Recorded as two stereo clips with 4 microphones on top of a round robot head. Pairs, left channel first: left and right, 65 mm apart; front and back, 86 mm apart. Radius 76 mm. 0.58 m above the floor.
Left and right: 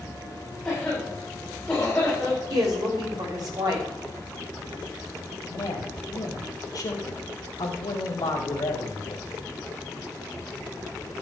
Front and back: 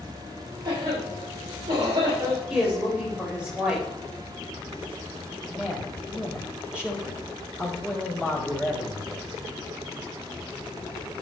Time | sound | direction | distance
0.7 | a cough | 170° left | 3.5 m
2.5 | a woman speaking | 100° right | 4.5 m
5.5 | a man speaking | 105° left | 3.5 m